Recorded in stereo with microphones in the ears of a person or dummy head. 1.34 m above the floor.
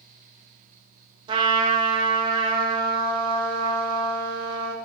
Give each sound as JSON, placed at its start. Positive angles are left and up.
{"t": 1.3, "sound": "a trumpet", "side_deg": -25, "distance_m": 0.6}